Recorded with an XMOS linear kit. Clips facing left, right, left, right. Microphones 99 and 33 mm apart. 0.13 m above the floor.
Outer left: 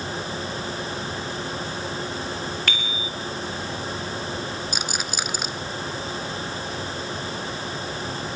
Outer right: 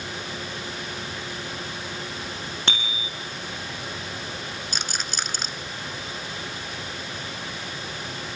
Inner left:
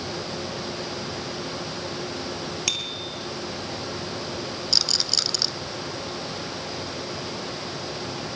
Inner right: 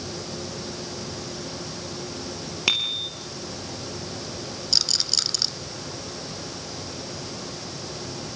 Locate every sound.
2.7 s a bicycle bell: 30° right (ahead or behind), 2.5 m
4.7 s a rattle: 5° left (ahead or behind), 0.8 m